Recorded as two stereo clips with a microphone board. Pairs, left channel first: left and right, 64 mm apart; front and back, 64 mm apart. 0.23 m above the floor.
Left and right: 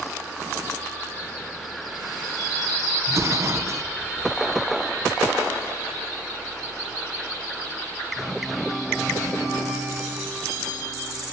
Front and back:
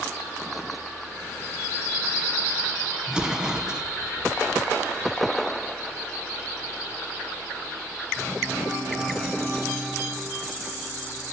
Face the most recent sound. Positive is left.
turn(degrees=-105)